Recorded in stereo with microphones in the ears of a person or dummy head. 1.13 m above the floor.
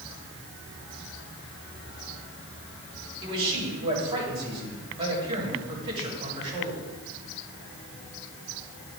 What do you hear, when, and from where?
3.2 s a man speaking: 30° right (ahead or behind), 6.5 m